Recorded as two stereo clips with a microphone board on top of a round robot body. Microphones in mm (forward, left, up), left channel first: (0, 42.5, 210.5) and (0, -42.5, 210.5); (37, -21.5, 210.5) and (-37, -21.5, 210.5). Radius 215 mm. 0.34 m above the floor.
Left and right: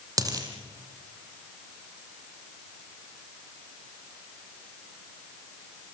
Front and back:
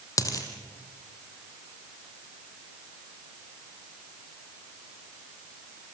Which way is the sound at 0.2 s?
40° right.